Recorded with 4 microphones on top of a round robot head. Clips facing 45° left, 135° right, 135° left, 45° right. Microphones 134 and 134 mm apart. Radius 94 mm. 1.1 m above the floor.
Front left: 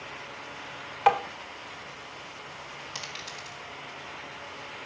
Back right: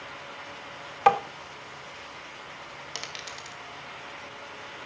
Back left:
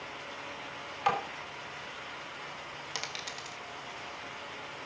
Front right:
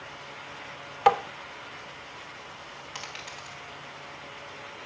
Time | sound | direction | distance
1.1 | tapping | 80° right | 1.8 m
3.0 | a dropped coin | 170° right | 2.0 m